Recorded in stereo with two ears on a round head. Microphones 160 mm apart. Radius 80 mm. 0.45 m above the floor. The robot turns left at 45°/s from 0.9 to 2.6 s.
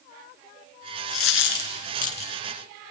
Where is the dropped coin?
90° left, 2 m; by 2.3 s 35° left (ahead or behind), 2 m.